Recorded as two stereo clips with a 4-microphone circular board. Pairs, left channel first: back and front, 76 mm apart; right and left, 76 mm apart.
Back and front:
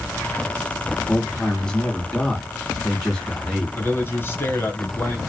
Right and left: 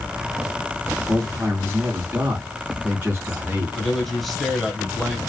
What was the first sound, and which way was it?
A man speaking, 110° left.